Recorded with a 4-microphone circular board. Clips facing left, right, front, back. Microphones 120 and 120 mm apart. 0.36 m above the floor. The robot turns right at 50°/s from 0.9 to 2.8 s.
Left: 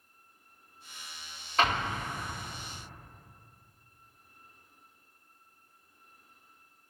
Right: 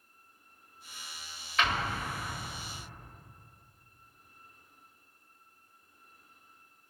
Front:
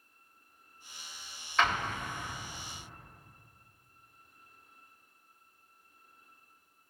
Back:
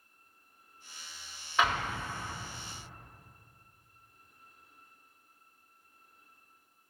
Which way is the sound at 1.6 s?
105° left.